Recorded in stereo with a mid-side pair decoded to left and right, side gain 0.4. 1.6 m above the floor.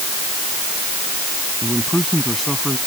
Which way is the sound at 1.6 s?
Straight ahead.